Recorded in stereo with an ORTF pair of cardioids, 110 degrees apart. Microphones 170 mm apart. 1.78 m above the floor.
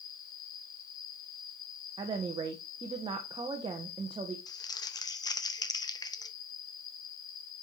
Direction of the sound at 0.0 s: 55° left.